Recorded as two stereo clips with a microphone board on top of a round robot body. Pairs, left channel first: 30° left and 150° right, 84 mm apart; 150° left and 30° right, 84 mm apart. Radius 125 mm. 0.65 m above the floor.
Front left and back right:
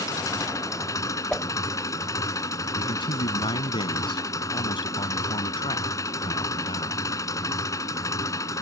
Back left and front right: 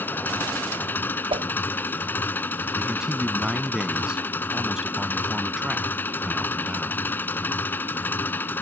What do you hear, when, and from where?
0.0 s an engine running: 80° left
1.3 s a whoosh: 50° right
2.8 s a man speaking: 50° left